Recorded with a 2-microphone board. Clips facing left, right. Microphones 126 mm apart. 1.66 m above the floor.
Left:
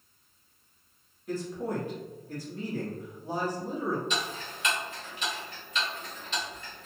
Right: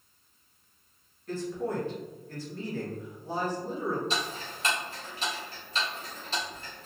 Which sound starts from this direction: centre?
A man speaking, at 1.3 s.